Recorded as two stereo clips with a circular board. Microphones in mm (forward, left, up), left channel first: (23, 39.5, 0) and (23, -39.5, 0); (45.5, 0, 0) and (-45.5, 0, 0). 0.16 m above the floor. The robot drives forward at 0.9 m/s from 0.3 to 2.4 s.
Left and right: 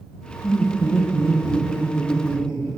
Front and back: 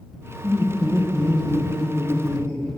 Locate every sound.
0.4 s laughter: 125° left, 1.9 m; by 2.7 s 160° left, 3 m